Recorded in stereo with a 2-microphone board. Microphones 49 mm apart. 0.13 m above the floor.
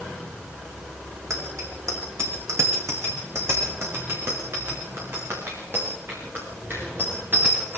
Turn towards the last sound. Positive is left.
turn(degrees=-35)  # may be behind; listen again after turning